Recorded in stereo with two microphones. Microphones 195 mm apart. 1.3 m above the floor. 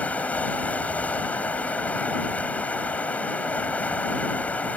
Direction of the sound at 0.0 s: 5° left (ahead or behind).